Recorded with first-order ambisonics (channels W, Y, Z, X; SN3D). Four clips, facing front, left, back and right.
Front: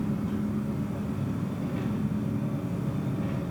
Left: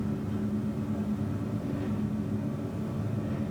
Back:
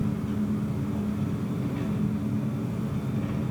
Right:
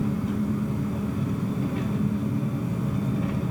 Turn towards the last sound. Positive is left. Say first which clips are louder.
# right 5 dB, back 1 dB
turn(degrees=-95)